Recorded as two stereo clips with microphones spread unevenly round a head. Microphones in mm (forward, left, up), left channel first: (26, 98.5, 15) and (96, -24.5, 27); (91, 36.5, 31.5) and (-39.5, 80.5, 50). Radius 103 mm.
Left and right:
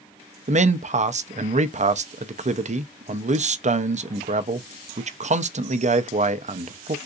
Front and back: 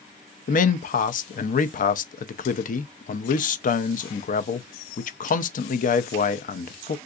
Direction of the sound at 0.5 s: 20° right.